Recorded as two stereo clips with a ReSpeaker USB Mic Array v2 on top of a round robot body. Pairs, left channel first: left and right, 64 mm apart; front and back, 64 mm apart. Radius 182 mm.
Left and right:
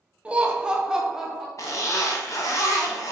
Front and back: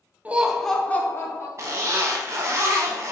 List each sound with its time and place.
0.2 s laughter: 140° right, 0.9 m; by 1.5 s 5° right, 1.1 m
1.6 s a zipper: 130° left, 0.6 m